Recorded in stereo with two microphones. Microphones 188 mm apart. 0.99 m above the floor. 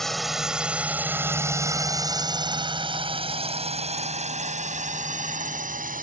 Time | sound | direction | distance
0.0 | a drone | centre (ahead or behind) | ?